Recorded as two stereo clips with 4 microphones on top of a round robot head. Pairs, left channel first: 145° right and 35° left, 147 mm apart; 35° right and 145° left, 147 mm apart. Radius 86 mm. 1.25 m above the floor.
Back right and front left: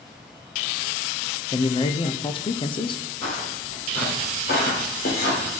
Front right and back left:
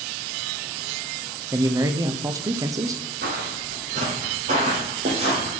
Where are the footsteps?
170° left, 2.5 m; by 5.5 s 160° right, 3 m.